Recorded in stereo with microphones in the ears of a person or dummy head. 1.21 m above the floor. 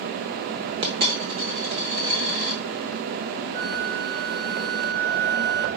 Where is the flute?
50° right (ahead or behind), 1.8 m.